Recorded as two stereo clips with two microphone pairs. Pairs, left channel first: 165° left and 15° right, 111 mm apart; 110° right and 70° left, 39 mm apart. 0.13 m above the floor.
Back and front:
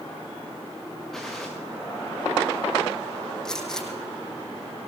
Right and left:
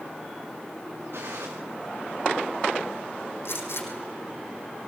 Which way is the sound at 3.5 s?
110° right.